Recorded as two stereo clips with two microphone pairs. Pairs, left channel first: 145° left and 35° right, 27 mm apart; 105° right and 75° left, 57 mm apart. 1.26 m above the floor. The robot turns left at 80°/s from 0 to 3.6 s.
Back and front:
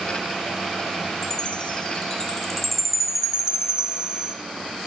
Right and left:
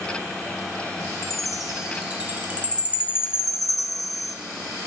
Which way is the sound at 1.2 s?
175° right.